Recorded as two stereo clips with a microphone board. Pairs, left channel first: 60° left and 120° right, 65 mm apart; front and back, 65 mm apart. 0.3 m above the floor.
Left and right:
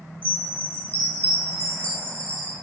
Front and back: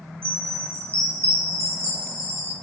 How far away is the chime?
About 2 m.